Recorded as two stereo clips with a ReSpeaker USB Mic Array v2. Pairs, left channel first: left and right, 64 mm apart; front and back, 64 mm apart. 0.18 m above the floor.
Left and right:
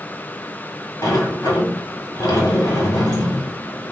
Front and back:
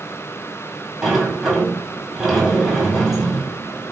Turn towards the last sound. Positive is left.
turn(degrees=95)